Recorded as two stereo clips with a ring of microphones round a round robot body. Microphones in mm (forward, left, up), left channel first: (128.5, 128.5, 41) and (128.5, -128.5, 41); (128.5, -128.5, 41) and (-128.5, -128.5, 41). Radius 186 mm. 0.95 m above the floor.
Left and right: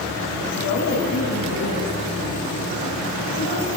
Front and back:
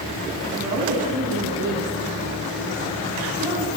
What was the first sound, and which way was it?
A woman speaking, 100° left.